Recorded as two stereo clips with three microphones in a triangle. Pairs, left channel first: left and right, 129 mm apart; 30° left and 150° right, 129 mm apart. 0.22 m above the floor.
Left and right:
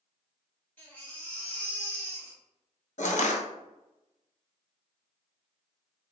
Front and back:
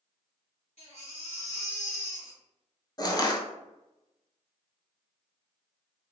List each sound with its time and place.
0.8 s a baby crying: 15° left, 1.8 m
3.0 s crushing: 85° left, 0.7 m